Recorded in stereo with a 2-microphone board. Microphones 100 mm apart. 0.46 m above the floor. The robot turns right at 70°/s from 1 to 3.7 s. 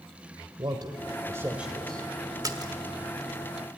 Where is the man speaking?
55° right, 1.4 m; by 2.1 s 20° left, 1.4 m.